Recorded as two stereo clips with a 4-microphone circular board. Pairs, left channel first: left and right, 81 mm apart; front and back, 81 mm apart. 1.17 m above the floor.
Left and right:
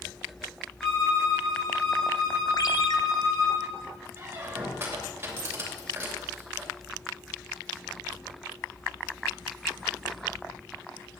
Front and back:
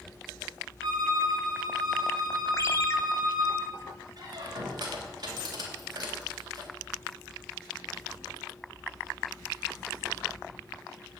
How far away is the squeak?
About 3 m.